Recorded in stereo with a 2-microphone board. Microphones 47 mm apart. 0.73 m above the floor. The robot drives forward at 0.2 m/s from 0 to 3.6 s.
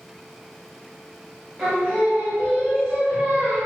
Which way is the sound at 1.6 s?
10° right (ahead or behind).